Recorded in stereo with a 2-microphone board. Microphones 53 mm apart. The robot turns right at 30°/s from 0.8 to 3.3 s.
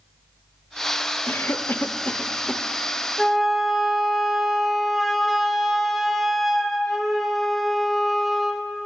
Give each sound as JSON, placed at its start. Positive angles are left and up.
{"t": 1.3, "sound": "a cough", "side_deg": 45, "distance_m": 0.5}
{"t": 3.2, "sound": "a flute", "side_deg": -5, "distance_m": 0.6}